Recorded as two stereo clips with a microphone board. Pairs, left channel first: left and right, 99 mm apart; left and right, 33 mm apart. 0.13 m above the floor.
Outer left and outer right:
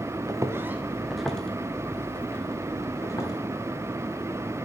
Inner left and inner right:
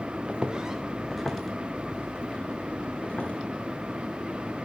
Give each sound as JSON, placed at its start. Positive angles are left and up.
{"t": 0.3, "sound": "footsteps", "side_deg": -35, "distance_m": 1.7}